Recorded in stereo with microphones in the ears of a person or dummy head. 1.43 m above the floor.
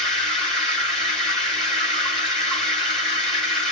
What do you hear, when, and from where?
0.0 s running water: centre (ahead or behind), 1.6 m